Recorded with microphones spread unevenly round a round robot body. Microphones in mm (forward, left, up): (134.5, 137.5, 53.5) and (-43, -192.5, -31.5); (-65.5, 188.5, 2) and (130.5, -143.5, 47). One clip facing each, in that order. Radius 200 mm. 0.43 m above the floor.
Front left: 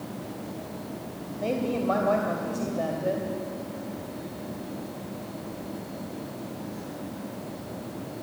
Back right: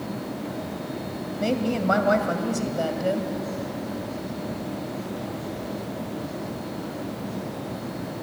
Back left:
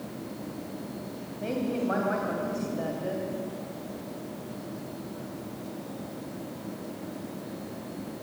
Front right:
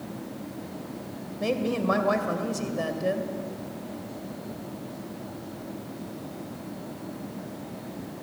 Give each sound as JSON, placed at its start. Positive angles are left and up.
{"t": 1.4, "sound": "a woman speaking", "azimuth_deg": -85, "distance_m": 2.5}